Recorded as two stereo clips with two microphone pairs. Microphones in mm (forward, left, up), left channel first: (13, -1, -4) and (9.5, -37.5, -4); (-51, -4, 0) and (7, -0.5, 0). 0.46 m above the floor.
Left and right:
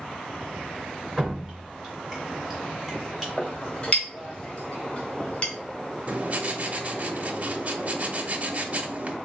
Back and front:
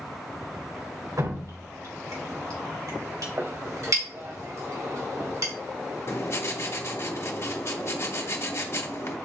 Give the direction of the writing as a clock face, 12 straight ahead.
5 o'clock.